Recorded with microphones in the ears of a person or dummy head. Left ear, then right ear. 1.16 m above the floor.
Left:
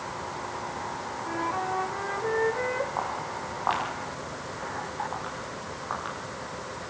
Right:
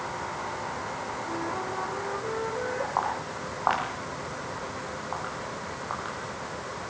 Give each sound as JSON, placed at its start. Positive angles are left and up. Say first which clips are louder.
{"t": 1.2, "sound": "a flute", "louder": "left 5 dB", "side_deg": 40, "distance_m": 2.0}
{"t": 3.0, "sound": "footsteps", "louder": "right 2 dB", "side_deg": -30, "distance_m": 8.5}